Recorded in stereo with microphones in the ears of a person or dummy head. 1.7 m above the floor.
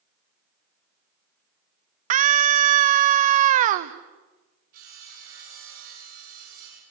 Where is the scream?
40° right (ahead or behind), 0.9 m.